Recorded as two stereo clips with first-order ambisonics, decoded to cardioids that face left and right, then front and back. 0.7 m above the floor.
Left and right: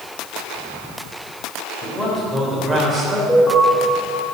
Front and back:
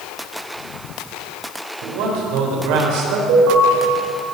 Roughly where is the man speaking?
Behind.